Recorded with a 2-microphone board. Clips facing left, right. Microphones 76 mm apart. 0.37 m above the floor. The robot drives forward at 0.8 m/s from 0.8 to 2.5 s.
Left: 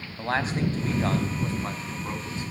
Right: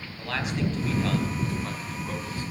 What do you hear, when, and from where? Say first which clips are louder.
0.2 s a man speaking: left 3 dB; 35° left (ahead or behind), 3 m; by 2.5 s 25° left (ahead or behind), 4 m